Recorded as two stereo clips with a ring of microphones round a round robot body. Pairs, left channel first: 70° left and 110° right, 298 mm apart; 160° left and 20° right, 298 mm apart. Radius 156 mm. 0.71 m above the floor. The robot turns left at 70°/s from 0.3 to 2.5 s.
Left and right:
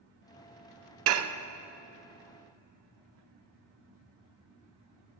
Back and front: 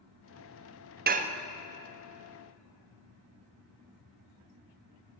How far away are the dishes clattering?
About 0.5 m.